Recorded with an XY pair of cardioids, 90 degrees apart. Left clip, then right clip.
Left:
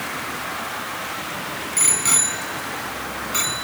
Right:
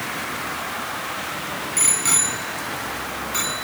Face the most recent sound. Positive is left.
turn(degrees=25)